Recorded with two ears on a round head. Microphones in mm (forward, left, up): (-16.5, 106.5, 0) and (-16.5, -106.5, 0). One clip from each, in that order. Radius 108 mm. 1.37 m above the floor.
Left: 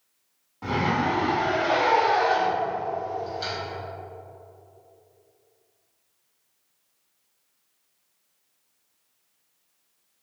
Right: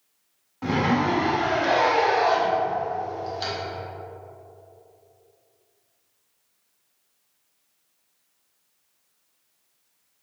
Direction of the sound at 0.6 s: 20° right (ahead or behind).